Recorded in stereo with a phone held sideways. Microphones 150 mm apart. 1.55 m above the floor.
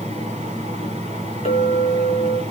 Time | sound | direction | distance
0.0 | a fan | 50° right (ahead or behind) | 1.9 m
1.4 | a clink | 55° left (ahead or behind) | 1.4 m